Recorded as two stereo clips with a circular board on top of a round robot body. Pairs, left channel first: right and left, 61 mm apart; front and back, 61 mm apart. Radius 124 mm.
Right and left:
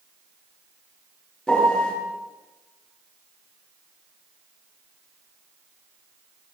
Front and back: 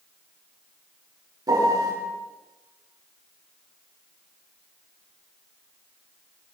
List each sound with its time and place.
1.5 s a piano: 170° right, 7.5 m